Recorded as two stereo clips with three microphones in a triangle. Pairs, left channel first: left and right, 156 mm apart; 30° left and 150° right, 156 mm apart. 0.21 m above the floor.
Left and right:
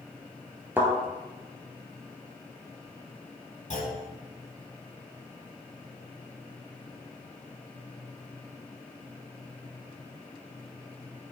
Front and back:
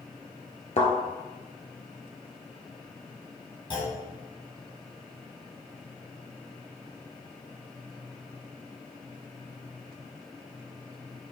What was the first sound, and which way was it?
A thud, 10° right.